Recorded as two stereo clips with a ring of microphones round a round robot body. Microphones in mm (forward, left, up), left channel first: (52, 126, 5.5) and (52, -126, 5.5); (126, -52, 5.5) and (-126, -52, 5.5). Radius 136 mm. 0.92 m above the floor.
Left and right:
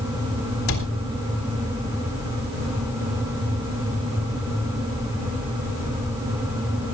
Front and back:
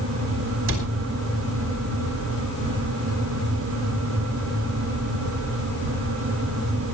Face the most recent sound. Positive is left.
turn(degrees=135)